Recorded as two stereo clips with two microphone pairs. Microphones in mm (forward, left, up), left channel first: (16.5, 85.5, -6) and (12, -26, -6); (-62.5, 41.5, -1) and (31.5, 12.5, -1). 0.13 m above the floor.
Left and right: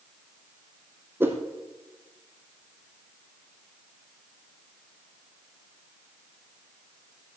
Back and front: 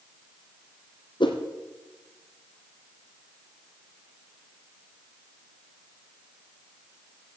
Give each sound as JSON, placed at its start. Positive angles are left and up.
{"t": 1.2, "sound": "a whoosh", "azimuth_deg": -165, "distance_m": 1.7}